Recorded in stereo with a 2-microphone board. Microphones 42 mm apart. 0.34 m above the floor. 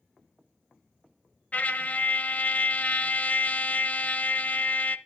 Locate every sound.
1.5 s a trumpet: 40° left (ahead or behind), 0.8 m